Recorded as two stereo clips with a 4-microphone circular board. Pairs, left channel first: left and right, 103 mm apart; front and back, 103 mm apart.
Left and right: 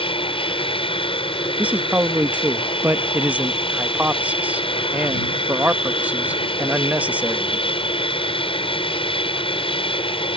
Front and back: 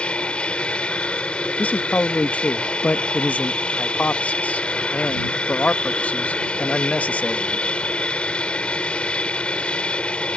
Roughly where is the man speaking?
Ahead right.